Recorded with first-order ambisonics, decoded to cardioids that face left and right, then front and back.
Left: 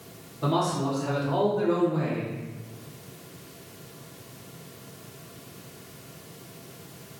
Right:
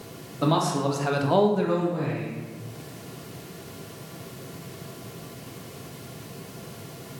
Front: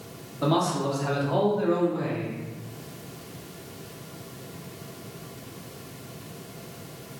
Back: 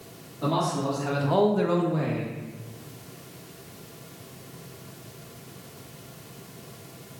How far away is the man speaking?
About 1.7 m.